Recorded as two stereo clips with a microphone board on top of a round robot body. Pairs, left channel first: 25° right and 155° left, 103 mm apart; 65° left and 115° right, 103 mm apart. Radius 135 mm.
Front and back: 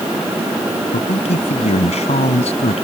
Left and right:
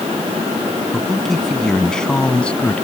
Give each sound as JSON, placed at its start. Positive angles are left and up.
{"t": 0.9, "sound": "a man speaking", "azimuth_deg": -20}